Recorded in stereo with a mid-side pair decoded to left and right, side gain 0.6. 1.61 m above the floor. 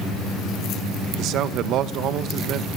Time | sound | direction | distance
1.2 | a man speaking | 60° right | 1.6 m